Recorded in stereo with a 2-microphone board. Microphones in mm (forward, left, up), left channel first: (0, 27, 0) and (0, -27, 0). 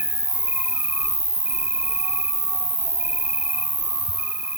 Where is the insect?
35° right (ahead or behind), 1.1 m.